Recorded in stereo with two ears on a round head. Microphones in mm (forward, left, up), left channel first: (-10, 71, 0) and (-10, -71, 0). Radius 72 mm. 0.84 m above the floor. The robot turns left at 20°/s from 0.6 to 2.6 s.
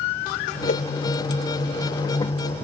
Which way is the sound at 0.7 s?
55° left (ahead or behind).